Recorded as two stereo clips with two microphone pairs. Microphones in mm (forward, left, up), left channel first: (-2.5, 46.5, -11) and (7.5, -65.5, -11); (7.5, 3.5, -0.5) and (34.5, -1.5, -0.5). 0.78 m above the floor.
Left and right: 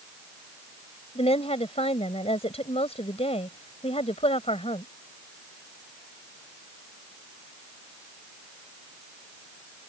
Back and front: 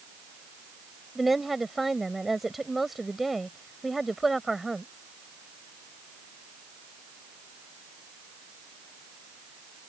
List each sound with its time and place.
1.1 s a woman speaking: 75° left